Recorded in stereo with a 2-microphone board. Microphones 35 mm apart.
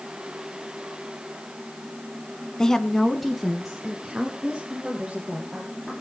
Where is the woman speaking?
15° left (ahead or behind), 1.1 m; by 5.9 s 10° right (ahead or behind), 4.5 m.